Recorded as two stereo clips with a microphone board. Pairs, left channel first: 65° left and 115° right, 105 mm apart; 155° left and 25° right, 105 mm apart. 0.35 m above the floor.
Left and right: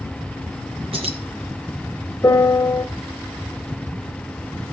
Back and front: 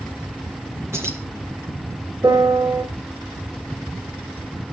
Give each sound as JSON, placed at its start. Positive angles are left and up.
{"t": 0.9, "sound": "keys jangling", "azimuth_deg": -85, "distance_m": 3.0}
{"t": 2.2, "sound": "a piano", "azimuth_deg": 20, "distance_m": 1.2}